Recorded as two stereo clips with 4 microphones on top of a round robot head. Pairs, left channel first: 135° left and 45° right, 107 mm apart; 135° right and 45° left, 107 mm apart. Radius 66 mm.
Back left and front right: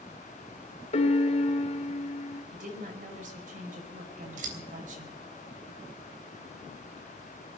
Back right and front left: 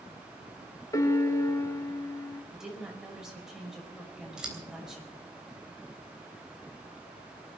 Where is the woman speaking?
45° right, 5 m.